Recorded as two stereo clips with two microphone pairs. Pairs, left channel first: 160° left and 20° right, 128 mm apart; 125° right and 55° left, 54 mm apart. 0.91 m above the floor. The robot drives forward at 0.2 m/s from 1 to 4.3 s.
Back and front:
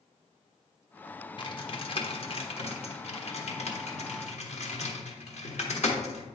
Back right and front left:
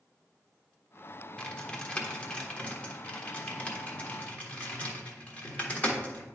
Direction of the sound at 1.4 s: 170° left.